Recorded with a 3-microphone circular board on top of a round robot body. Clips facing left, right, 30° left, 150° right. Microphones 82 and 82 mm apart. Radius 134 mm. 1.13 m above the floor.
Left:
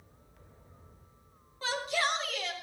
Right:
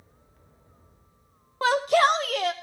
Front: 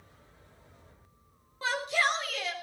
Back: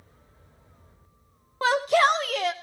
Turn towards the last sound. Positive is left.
turn(degrees=-115)